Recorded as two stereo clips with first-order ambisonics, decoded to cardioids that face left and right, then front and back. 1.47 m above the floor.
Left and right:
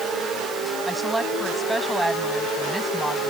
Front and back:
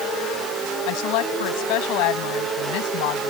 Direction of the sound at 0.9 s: 5° right.